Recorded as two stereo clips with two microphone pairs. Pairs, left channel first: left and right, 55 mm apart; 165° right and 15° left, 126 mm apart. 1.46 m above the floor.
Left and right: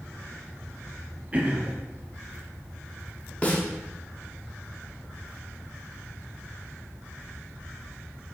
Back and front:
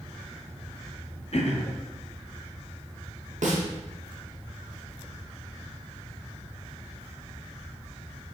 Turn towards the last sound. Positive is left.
turn(degrees=25)